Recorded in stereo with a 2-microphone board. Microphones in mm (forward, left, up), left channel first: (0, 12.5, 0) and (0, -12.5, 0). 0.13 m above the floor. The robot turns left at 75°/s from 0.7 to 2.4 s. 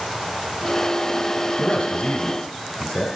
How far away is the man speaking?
About 2 m.